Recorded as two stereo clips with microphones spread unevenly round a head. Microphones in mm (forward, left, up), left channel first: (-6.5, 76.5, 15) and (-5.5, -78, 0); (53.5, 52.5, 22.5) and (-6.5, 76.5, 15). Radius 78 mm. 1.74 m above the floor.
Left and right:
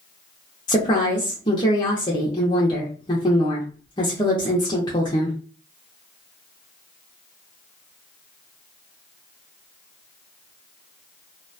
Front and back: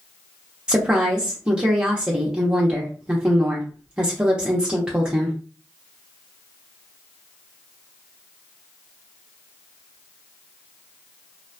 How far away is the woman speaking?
About 0.7 m.